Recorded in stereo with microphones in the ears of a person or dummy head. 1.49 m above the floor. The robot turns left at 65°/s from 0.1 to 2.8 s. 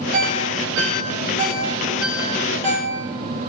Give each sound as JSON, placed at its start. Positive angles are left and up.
{"t": 0.1, "sound": "a ringtone", "side_deg": -50, "distance_m": 4.5}